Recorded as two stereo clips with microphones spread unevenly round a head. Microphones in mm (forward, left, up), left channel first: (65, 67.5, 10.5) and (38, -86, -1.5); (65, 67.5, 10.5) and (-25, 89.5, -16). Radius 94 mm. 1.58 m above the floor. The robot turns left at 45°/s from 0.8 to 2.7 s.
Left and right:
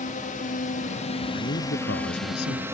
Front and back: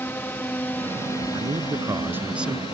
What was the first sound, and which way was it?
A drone, 50° left.